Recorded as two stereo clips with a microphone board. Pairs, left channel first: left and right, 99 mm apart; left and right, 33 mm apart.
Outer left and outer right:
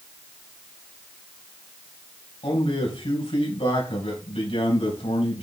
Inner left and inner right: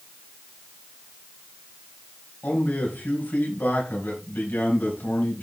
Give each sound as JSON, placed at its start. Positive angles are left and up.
{"t": 2.4, "sound": "a man speaking", "side_deg": 80, "distance_m": 4.5}